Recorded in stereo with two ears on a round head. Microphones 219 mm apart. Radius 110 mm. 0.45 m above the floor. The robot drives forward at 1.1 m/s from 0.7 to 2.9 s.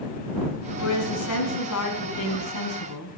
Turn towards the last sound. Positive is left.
turn(degrees=75)  # may be behind; listen again after turning